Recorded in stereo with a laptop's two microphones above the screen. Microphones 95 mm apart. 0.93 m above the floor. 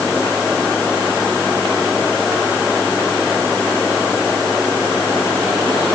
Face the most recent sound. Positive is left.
No sound to turn to.